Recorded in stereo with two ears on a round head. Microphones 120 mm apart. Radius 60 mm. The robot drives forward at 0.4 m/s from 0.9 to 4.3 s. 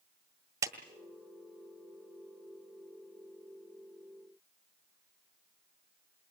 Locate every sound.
0.6 s a clap: 25° right (ahead or behind), 2.0 m